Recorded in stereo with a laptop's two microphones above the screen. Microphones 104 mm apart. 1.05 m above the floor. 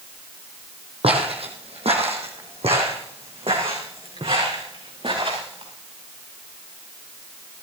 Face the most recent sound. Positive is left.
turn(degrees=-60)  # may be behind; listen again after turning